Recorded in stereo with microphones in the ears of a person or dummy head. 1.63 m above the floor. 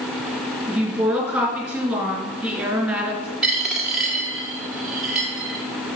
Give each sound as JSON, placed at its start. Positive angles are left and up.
{"t": 0.7, "sound": "a woman speaking", "side_deg": 5, "distance_m": 4.0}
{"t": 3.4, "sound": "a dropped coin", "side_deg": 0, "distance_m": 1.6}